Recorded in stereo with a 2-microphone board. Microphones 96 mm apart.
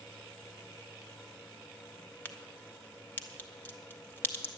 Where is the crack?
20° left (ahead or behind), 1.1 m.